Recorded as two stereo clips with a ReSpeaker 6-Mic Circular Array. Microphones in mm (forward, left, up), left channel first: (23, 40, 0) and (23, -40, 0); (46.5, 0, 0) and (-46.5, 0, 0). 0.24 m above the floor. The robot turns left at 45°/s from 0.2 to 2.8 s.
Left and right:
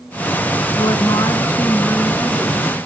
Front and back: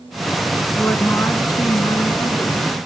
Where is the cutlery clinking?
I don't hear cutlery clinking.